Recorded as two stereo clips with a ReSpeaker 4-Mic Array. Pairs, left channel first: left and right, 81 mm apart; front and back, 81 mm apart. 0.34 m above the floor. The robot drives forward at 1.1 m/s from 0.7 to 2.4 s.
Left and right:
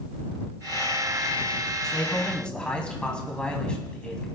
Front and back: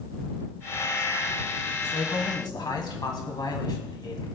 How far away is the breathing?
No breathing in this recording.